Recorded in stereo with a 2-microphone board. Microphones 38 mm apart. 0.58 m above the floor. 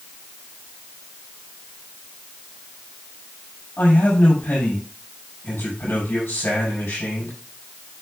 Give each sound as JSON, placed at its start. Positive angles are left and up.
{"t": 3.8, "sound": "a man speaking", "side_deg": 70, "distance_m": 5.0}